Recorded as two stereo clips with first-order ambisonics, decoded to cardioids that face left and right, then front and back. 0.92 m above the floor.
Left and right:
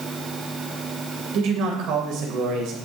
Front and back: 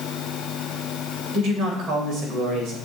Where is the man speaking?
125° right, 3.5 m.